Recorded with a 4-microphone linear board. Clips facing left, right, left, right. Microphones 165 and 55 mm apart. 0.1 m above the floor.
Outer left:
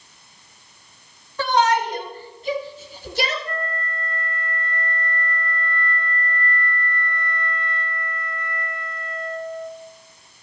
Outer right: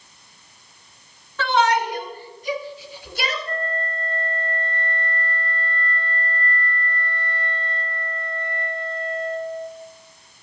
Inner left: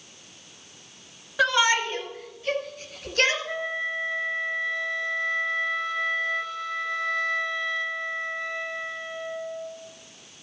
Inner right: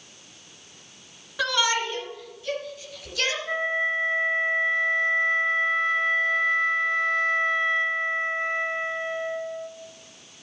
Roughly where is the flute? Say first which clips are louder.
Outer right 2 dB, inner right 4 dB; right.